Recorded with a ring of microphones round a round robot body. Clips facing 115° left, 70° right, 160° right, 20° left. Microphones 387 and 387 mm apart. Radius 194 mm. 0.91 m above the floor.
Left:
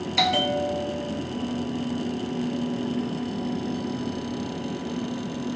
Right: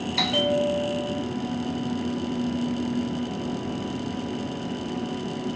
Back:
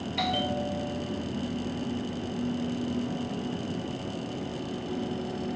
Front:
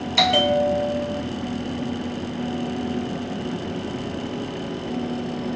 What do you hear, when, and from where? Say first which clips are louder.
0.2 s a bell: right 2 dB, front 11 dB; 30° left, 1.1 m